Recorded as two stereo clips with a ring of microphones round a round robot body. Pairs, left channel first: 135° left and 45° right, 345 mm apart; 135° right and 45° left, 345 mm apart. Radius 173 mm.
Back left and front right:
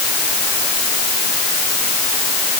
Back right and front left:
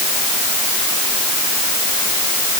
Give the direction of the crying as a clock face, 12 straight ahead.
No crying in this recording.